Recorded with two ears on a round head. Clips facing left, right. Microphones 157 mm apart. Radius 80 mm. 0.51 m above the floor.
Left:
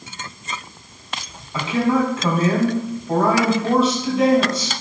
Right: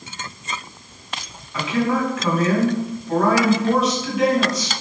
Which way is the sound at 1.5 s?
25° left (ahead or behind).